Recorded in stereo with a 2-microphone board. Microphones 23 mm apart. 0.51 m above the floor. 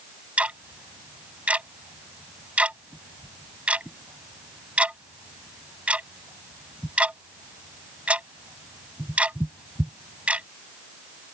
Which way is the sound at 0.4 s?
70° right (ahead or behind).